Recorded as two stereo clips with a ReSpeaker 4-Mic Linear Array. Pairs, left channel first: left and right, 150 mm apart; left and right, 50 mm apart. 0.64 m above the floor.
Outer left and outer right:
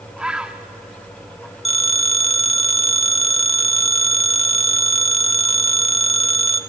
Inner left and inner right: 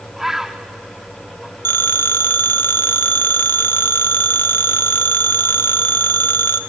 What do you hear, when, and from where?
0.2 s a bird: 5° right (ahead or behind), 0.9 m
1.6 s a phone ringing: 45° left (ahead or behind), 1.0 m